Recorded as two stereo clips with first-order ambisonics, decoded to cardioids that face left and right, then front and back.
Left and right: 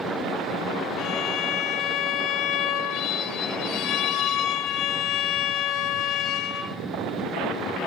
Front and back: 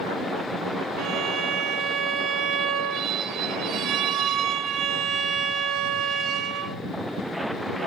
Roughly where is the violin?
Behind left.